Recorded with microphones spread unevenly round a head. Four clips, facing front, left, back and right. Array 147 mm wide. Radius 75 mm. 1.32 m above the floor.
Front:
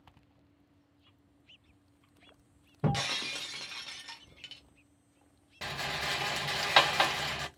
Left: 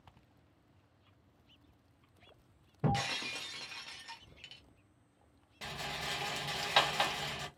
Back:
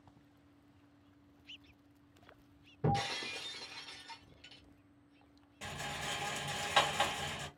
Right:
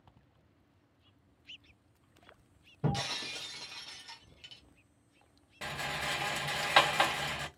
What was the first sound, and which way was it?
Breaking glass, 15° left.